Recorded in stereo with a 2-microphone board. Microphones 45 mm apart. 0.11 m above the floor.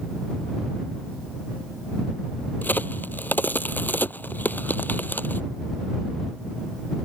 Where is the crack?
45° left (ahead or behind).